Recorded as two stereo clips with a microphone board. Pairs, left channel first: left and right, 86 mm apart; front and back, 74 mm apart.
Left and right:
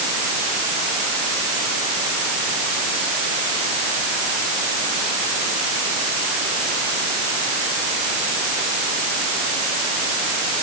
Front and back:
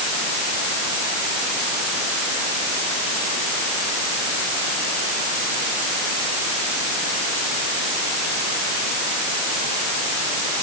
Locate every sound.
Only background noise.